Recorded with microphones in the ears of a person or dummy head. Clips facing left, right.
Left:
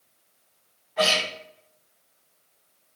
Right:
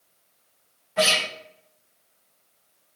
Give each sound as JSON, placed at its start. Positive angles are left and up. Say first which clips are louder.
{"t": 1.0, "sound": "a guitar", "louder": "right 1 dB", "side_deg": -50, "distance_m": 1.1}